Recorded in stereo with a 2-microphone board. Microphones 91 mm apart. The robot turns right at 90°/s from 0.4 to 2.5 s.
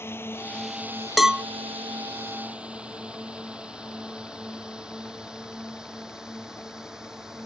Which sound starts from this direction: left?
A drone, at 0.0 s.